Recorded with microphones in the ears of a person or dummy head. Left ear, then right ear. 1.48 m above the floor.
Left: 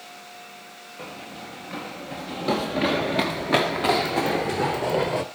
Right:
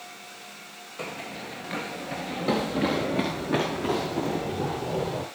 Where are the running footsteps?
25° right (ahead or behind), 1.8 m; by 5.2 s 45° left (ahead or behind), 1.9 m.